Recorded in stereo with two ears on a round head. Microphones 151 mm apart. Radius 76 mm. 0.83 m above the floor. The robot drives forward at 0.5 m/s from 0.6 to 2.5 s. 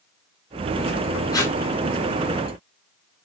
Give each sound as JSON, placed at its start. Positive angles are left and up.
{"t": 1.3, "sound": "tape being pulled", "side_deg": 25, "distance_m": 2.0}